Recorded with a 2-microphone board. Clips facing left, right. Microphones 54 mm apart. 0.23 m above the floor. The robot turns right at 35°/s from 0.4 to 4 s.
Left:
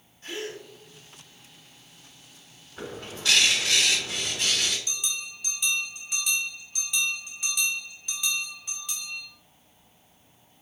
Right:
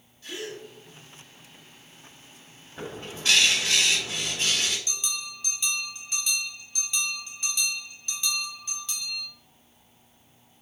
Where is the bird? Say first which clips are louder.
Even; 140° right, 1.7 m; by 4.8 s 95° right, 1.7 m.